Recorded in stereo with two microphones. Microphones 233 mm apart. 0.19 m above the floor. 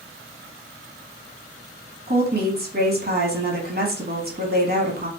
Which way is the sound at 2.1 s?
40° right (ahead or behind).